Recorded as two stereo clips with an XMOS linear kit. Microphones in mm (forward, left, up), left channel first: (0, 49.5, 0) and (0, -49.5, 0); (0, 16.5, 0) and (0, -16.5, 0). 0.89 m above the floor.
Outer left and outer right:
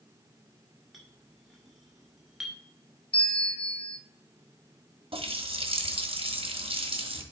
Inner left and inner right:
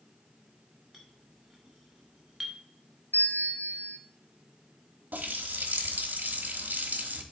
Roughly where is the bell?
Left.